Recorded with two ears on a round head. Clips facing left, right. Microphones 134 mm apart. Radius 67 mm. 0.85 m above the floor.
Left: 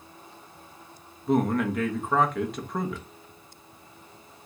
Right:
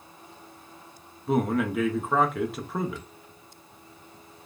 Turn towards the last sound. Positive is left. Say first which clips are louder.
# left 1 dB
turn(degrees=0)  # may be behind; listen again after turning